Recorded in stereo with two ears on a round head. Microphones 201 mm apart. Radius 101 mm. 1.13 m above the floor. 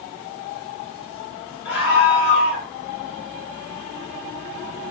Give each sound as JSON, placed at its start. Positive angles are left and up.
{"t": 1.6, "sound": "a scream", "side_deg": 80, "distance_m": 7.0}